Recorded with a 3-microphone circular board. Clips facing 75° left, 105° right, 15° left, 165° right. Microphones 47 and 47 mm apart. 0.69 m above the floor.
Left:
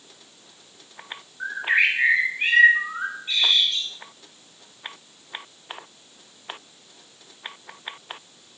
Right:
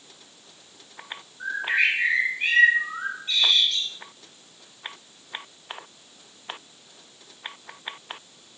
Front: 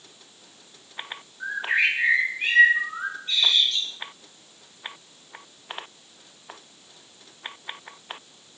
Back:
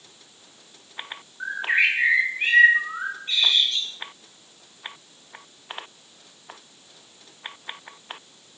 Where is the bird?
140° left, 4 m.